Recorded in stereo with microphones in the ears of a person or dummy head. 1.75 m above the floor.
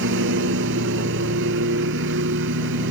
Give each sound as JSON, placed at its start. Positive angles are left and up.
{"t": 0.0, "sound": "a lawn mower", "side_deg": -70}